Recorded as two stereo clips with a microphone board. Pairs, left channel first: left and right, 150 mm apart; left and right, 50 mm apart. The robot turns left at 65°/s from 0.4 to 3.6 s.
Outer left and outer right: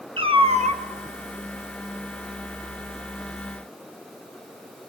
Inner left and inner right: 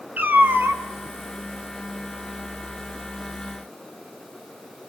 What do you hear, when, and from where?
0.2 s a cat meowing: 35° right (ahead or behind), 1.1 m; by 0.8 s 65° right (ahead or behind), 1.1 m